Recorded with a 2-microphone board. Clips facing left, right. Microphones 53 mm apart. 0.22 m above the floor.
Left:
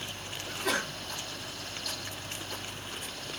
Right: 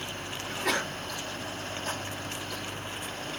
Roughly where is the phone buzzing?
No phone buzzing in this recording.